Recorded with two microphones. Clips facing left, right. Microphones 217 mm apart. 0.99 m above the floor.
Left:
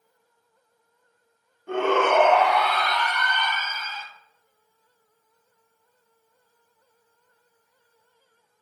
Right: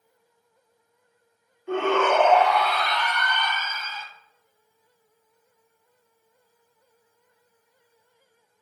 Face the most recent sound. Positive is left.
turn(degrees=5)  # may be behind; listen again after turning